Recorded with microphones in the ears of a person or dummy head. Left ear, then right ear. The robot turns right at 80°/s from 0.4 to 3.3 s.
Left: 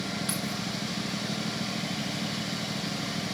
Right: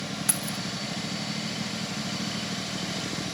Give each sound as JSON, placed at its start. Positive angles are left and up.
{"t": 0.3, "sound": "keys jangling", "side_deg": -25, "distance_m": 1.0}